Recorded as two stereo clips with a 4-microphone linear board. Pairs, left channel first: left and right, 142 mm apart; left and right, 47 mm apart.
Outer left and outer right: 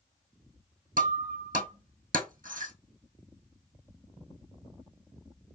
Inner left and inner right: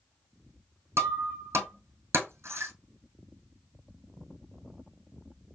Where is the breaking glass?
75° right (ahead or behind), 2.5 m.